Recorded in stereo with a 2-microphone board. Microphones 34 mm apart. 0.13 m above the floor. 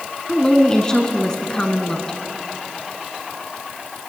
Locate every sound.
0.3 s a woman speaking: 20° left (ahead or behind), 1.0 m